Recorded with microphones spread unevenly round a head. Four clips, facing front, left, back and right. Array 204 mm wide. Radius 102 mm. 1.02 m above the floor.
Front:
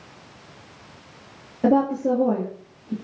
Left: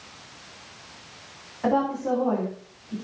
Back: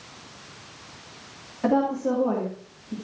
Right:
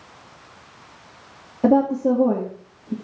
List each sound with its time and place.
1.6 s a woman speaking: 65° right, 2.5 m